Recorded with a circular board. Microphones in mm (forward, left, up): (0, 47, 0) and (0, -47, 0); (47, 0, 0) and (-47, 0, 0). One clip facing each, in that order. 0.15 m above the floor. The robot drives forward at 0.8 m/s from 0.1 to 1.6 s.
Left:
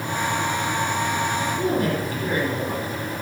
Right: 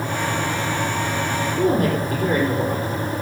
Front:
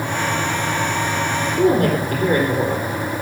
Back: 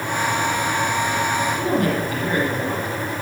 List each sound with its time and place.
1.6 s a woman speaking: 45° right, 4.5 m